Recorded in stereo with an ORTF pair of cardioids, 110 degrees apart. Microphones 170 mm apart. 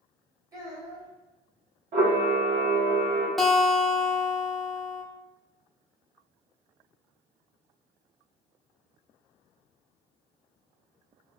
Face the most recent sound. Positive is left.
turn(degrees=0)